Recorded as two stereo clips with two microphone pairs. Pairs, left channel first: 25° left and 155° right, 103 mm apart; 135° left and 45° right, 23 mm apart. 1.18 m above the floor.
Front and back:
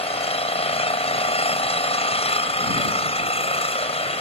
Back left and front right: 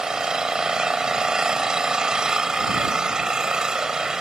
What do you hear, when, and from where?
0.0 s an engine running: 15° left